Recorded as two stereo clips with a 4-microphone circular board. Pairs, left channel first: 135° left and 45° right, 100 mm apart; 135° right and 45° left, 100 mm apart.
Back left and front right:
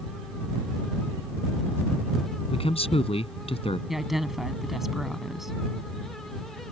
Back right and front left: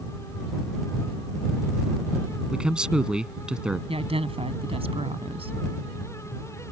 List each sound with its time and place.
2.5 s a man speaking: 125° left
3.9 s a woman speaking: 40° left